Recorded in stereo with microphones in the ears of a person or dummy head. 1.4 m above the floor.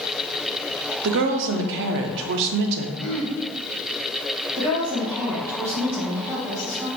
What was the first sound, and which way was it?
A woman speaking, 65° right (ahead or behind).